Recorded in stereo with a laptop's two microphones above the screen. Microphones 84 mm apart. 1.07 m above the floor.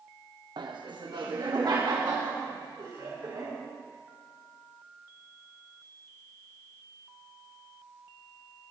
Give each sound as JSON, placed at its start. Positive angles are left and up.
{"t": 0.6, "sound": "laughter", "side_deg": -65, "distance_m": 0.9}